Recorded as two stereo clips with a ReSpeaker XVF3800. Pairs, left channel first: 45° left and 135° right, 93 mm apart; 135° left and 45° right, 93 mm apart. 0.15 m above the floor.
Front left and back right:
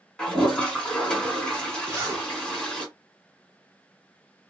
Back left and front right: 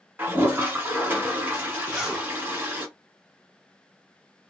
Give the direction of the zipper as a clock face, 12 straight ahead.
4 o'clock.